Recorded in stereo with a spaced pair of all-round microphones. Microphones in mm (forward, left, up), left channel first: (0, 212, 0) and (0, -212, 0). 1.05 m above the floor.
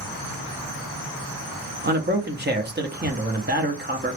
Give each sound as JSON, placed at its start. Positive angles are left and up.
{"t": 1.8, "sound": "a man speaking", "side_deg": -25, "distance_m": 0.7}